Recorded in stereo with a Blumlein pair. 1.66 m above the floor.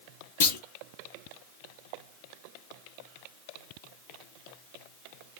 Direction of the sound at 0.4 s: 55° left.